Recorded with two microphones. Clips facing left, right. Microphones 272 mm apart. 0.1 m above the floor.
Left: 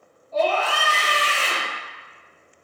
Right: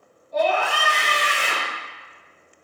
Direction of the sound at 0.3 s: 15° right (ahead or behind).